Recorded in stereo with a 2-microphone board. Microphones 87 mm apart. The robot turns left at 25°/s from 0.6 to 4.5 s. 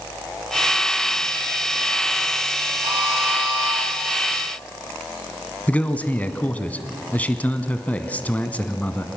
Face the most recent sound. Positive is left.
turn(degrees=15)  # may be behind; listen again after turning